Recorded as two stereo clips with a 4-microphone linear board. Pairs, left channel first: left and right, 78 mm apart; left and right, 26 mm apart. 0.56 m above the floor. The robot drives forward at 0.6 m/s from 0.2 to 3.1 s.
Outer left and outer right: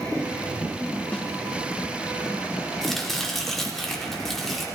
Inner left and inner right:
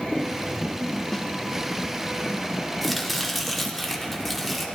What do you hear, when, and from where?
1.1 s a snare drum: 15° left (ahead or behind), 0.9 m
2.8 s chopping: 5° left (ahead or behind), 1.2 m